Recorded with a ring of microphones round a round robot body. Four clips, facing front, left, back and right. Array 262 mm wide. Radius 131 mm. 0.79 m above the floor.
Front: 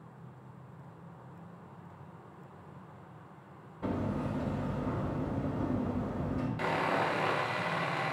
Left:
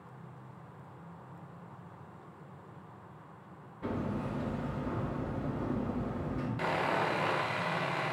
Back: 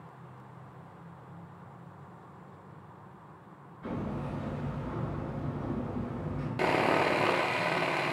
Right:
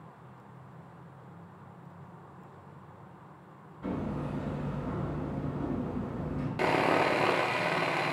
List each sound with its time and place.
3.8 s hammering: 20° left, 4 m
6.6 s sawing: 135° right, 0.6 m